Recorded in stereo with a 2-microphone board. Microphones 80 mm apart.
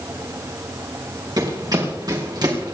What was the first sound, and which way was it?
Running footsteps, 55° right (ahead or behind).